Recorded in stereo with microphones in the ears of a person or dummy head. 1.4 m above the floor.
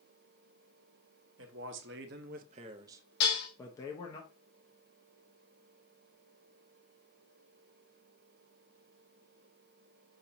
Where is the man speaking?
65° right (ahead or behind), 1.0 m; by 4.2 s 30° left (ahead or behind), 0.9 m.